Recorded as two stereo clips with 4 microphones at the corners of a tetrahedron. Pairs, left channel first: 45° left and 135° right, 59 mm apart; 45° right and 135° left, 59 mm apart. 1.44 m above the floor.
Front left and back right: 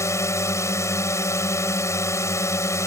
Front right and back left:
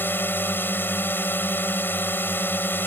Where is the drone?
10° left.